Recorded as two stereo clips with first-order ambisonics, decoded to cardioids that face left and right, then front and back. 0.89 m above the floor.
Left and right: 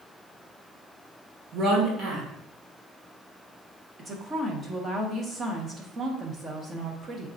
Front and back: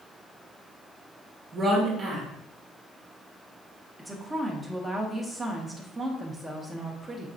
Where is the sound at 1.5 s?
115° right, 1.2 m.